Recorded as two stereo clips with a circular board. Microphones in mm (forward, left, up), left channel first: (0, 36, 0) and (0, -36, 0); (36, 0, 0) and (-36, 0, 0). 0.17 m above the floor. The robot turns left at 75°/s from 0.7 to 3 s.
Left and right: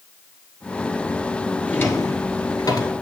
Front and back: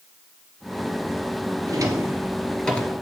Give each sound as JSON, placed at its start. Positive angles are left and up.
{"t": 1.7, "sound": "a drawer", "azimuth_deg": 155, "distance_m": 1.1}